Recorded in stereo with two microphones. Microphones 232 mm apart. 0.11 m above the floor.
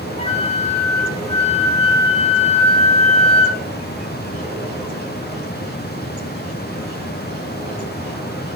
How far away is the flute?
About 0.6 m.